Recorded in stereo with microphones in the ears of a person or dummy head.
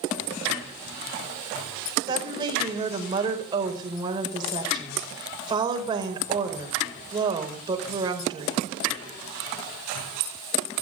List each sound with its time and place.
2.1 s a woman speaking: 25° right (ahead or behind), 5 m